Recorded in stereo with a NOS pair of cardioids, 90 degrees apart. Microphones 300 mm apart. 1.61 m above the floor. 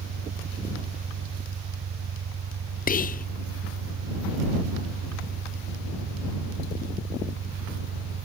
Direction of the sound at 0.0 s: 55° right.